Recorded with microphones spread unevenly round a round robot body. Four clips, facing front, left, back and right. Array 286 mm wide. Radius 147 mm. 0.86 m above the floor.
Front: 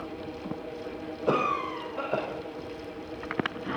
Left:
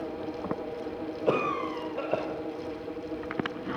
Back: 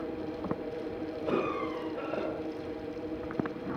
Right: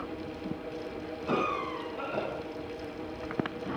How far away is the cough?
About 4 m.